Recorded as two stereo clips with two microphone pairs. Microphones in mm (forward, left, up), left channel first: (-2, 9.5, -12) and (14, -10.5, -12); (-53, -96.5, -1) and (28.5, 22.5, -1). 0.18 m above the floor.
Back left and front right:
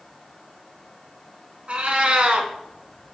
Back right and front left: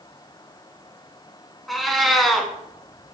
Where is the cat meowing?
40° right, 0.6 m.